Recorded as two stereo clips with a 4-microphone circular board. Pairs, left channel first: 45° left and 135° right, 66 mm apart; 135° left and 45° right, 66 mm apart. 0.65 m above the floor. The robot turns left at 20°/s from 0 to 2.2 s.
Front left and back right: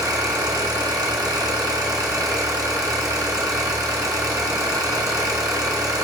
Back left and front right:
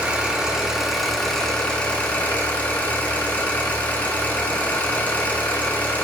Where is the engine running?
115° right, 0.7 m; by 6.0 s 160° right, 0.7 m.